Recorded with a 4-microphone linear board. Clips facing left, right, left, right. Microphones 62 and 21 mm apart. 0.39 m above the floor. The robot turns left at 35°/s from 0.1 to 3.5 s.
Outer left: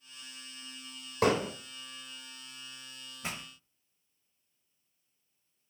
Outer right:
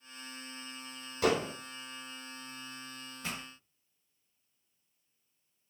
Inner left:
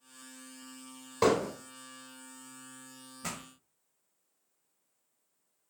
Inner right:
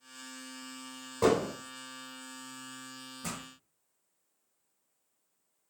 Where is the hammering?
70° left (ahead or behind), 3 m; by 1.5 s 75° left (ahead or behind), 3 m.